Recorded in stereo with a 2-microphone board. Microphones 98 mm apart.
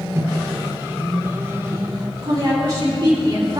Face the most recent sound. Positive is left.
turn(degrees=-60)  # may be behind; listen again after turning